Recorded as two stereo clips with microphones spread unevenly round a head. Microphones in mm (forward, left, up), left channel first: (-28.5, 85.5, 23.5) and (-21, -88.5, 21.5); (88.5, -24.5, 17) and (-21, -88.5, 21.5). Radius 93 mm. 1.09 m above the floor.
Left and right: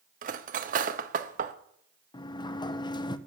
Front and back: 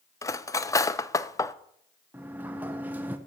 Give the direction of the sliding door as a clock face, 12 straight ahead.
7 o'clock.